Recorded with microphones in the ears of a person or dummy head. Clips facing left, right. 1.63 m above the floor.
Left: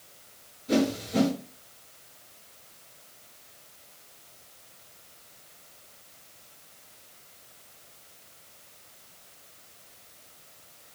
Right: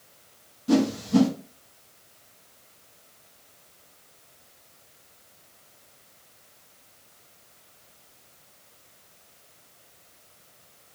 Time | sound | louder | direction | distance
0.7 | a whoosh | right 4 dB | 80° right | 1.0 m